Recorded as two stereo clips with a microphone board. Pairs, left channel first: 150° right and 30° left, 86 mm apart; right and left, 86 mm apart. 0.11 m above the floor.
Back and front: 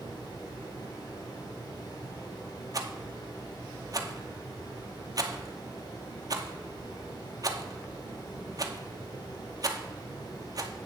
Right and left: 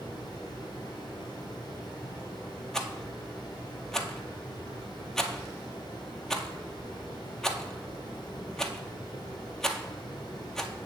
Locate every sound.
0.0 s running water: 125° right, 4 m
2.7 s a rattle: 5° right, 0.7 m